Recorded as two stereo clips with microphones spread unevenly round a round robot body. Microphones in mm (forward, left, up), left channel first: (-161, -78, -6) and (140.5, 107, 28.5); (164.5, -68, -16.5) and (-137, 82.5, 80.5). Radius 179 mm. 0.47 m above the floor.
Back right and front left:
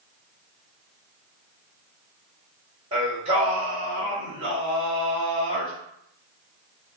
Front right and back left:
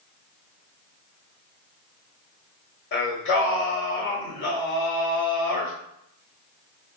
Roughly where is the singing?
Ahead right.